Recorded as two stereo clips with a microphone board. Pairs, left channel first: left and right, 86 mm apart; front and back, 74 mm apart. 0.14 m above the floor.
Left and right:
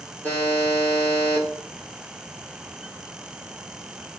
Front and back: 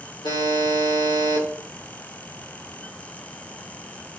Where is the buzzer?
20° left, 5 m.